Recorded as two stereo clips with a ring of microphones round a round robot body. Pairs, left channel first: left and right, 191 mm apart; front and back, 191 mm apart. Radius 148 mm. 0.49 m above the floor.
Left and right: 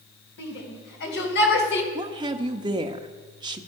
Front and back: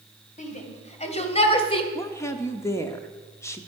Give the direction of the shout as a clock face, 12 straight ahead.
10 o'clock.